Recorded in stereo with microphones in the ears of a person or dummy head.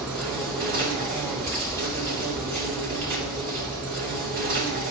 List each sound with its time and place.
0.0 s an insect: 70° right (ahead or behind), 3.5 m